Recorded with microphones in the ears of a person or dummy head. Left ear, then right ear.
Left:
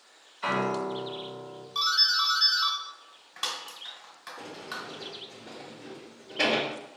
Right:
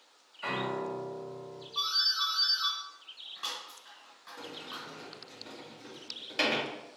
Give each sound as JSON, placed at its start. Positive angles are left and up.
{"t": 0.4, "sound": "a piano", "side_deg": 0, "distance_m": 1.8}
{"t": 1.8, "sound": "a doorbell", "side_deg": 55, "distance_m": 1.6}
{"t": 4.4, "sound": "a sliding door", "side_deg": -80, "distance_m": 1.9}